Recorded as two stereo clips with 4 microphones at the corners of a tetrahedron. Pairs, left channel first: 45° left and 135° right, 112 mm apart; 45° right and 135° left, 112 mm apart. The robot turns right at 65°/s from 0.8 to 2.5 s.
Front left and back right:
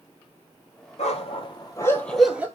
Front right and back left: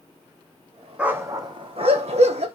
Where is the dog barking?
55° left, 1.4 m; by 2.5 s 150° left, 1.4 m.